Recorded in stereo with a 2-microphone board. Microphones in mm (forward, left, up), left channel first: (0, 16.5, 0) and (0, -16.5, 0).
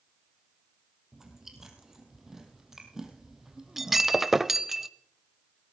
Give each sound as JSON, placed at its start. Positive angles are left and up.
{"t": 1.1, "sound": "chewing", "side_deg": -10, "distance_m": 2.5}
{"t": 3.8, "sound": "breaking glass", "side_deg": -10, "distance_m": 0.6}